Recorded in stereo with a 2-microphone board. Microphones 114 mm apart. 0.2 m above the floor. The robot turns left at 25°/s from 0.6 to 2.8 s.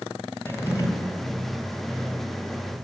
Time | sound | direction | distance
0.5 | a drawer | 25° left (ahead or behind) | 2 m